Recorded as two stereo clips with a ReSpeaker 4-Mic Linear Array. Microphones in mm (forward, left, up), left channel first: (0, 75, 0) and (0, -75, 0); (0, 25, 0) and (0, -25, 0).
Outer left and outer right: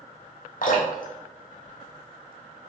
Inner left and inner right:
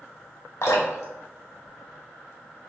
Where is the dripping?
70° left (ahead or behind), 1.0 m.